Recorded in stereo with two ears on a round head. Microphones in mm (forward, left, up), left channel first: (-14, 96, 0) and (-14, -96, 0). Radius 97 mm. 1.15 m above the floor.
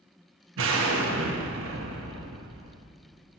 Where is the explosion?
75° right (ahead or behind), 1.3 m.